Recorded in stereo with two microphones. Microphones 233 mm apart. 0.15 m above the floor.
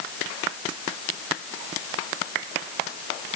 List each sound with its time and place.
Only background noise.